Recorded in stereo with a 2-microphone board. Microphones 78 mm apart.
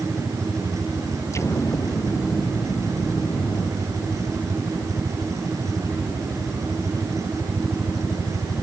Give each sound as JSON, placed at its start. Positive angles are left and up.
{"t": 1.3, "sound": "an explosion", "side_deg": 40}